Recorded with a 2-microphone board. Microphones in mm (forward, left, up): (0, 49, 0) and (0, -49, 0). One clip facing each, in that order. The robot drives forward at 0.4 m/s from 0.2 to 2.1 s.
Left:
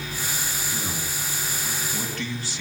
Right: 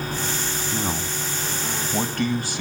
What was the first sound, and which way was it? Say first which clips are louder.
A man speaking: right 5 dB; 40° right (ahead or behind).